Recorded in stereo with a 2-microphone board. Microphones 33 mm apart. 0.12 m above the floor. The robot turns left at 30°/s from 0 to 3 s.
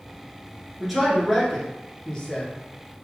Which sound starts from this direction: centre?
A man speaking, at 0.8 s.